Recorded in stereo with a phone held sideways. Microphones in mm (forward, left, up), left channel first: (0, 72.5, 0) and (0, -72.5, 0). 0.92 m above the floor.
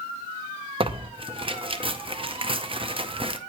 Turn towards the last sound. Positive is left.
turn(degrees=-35)  # may be behind; listen again after turning